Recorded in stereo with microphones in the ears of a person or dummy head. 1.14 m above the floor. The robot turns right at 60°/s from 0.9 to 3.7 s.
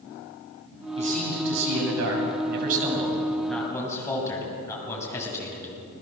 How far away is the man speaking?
About 8 m.